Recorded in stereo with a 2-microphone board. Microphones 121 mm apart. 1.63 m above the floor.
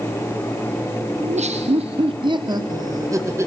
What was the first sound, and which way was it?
Laughter, 80° right.